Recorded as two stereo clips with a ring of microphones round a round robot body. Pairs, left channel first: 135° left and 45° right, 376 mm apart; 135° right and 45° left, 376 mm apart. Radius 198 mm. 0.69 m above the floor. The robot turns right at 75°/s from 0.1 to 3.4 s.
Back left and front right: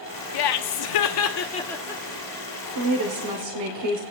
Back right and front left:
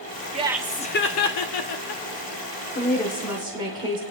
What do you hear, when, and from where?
0.3 s laughter: 115° left, 1.1 m; by 2.0 s 120° right, 1.1 m
2.8 s a woman speaking: 75° right, 2 m; by 4.0 s 25° right, 2 m